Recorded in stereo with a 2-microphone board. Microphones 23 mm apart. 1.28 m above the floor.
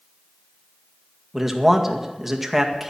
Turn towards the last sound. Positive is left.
turn(degrees=-10)  # may be behind; listen again after turning